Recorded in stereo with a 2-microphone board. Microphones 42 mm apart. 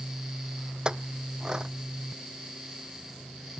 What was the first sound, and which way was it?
A clink, 20° right (ahead or behind).